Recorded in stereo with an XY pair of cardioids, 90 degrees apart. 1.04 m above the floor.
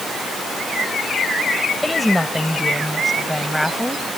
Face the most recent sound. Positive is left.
turn(degrees=5)